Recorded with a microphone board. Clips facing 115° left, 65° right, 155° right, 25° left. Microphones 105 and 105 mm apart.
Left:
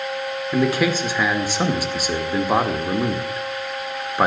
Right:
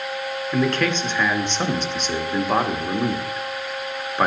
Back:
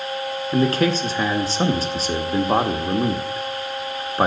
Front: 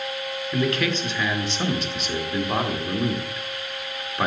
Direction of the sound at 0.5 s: 170° right.